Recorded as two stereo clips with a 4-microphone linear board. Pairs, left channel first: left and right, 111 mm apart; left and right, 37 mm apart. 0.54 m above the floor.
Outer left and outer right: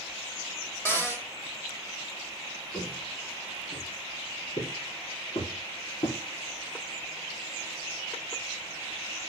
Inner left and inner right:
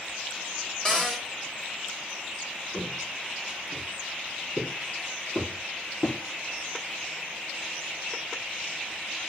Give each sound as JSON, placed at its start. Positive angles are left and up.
{"t": 0.8, "sound": "a cupboard door", "side_deg": 25, "distance_m": 1.7}
{"t": 2.7, "sound": "footsteps", "side_deg": 80, "distance_m": 4.5}